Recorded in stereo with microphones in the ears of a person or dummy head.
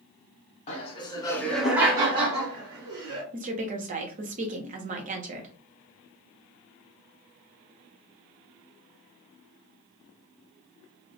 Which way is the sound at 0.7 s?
35° left (ahead or behind).